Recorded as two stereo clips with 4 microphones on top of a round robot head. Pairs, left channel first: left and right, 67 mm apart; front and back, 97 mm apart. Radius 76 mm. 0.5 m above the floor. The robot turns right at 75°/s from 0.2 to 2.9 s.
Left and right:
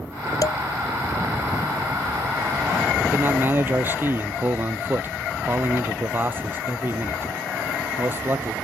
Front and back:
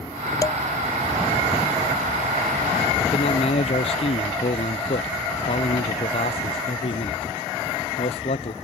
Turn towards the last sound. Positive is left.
turn(degrees=-30)